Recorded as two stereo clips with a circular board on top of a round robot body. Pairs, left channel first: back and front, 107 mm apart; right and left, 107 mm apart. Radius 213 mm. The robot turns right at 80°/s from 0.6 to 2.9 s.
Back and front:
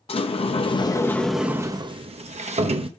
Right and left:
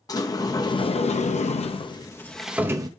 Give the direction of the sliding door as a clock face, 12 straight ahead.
5 o'clock.